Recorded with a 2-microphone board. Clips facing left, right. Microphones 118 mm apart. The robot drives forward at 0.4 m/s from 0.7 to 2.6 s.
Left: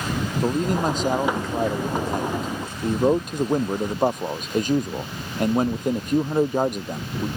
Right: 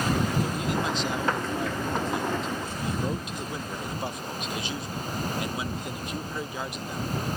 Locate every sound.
0.4 s a man speaking: 45° left (ahead or behind)